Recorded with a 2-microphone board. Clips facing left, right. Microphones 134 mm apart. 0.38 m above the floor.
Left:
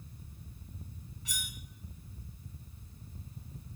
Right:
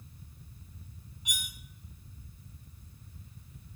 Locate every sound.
1.2 s cutlery clinking: 20° right (ahead or behind), 1.2 m